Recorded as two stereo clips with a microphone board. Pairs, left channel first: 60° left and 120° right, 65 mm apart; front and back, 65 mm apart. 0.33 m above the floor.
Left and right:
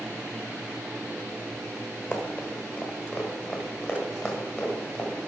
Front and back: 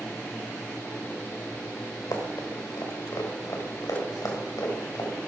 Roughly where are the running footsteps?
Ahead.